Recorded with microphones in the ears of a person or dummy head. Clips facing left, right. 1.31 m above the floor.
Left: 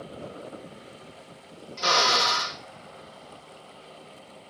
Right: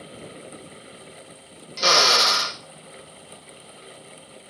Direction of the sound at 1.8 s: 45° right (ahead or behind).